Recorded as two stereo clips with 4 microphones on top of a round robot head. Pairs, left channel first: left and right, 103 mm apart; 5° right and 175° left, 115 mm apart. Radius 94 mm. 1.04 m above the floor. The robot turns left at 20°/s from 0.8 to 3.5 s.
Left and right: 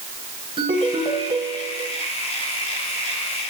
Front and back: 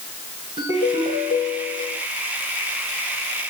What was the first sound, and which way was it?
A ringtone, 130° right.